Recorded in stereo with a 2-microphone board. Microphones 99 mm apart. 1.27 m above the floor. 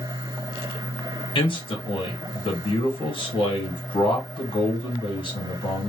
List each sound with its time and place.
1.4 s a man speaking: 60° left (ahead or behind), 1.2 m